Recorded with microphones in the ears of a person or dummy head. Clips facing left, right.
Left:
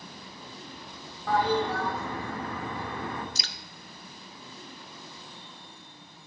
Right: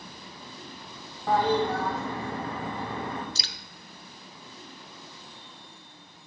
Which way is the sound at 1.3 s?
30° right (ahead or behind).